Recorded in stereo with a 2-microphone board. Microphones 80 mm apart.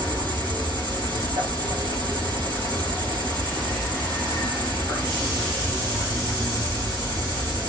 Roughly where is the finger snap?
I don't hear a finger snap.